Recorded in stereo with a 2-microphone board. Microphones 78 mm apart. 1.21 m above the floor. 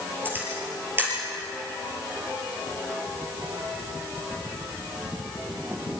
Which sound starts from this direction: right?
A camera shutter, at 0.2 s.